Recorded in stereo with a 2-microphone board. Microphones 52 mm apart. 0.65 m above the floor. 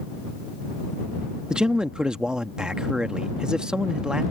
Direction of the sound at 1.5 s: 15° right (ahead or behind).